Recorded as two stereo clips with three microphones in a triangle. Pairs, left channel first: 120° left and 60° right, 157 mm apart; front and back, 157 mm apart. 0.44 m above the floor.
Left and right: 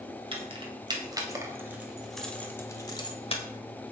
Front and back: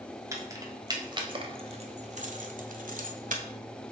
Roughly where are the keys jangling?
Right.